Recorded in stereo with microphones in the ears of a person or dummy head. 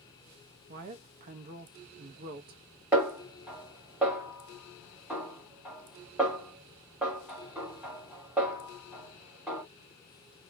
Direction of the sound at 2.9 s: 5° right (ahead or behind).